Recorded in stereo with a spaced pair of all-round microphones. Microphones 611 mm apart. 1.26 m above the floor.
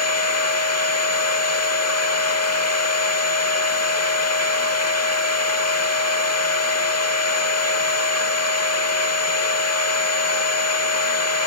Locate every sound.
0.0 s a machine running: 25° left (ahead or behind), 1.1 m